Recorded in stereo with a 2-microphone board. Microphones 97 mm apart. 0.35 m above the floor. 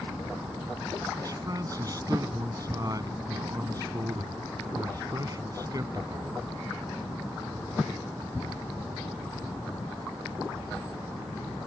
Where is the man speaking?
40° right (ahead or behind).